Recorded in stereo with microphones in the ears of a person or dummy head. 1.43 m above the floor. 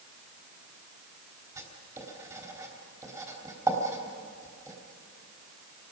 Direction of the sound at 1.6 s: 20° right (ahead or behind).